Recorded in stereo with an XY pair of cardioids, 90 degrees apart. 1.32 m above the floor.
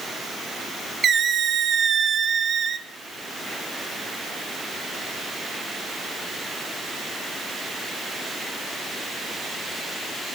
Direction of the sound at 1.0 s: 55° right.